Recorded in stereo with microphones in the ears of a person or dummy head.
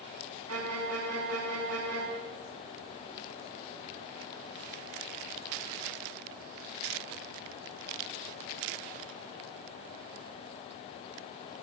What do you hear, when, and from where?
0.5 s a violin: 85° right, 6 m